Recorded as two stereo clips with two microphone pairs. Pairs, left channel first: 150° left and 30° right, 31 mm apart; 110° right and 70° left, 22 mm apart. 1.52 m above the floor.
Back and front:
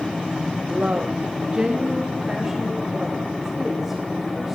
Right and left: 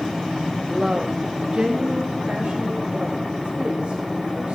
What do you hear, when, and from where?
0.7 s a woman speaking: 10° right, 0.5 m; by 4.5 s 45° left, 2.5 m